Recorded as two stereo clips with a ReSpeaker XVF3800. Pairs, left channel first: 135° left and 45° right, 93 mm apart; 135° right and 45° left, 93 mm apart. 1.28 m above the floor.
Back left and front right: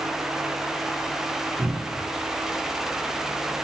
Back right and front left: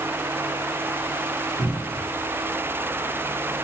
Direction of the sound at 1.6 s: 120° right.